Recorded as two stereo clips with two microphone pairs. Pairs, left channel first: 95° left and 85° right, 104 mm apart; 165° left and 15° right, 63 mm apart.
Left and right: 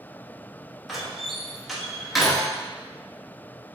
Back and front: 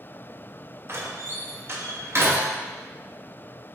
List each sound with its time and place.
0.9 s a door slam: 5° left, 0.7 m